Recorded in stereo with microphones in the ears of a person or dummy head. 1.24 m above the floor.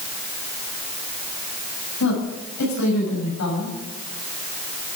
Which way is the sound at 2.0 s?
70° left (ahead or behind).